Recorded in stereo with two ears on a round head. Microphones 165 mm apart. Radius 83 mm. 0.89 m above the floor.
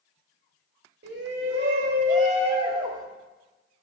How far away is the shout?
About 1.9 m.